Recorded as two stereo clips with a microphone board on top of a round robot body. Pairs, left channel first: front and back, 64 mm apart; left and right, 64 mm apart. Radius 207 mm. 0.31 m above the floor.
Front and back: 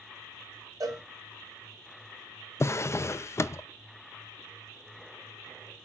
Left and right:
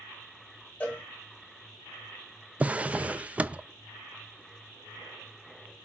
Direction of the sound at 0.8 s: 160° left.